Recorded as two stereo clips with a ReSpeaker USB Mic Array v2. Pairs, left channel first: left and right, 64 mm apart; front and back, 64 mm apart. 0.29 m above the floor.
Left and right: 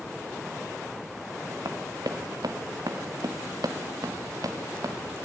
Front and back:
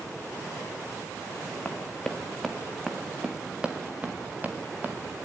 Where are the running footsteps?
70° right, 1.7 m; by 5.2 s 120° right, 3 m.